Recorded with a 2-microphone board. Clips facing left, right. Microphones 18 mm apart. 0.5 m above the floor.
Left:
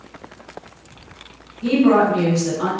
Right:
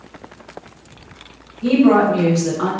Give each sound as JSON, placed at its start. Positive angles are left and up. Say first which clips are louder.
{"t": 1.6, "sound": "a woman speaking", "louder": "right 2 dB", "side_deg": -10, "distance_m": 1.2}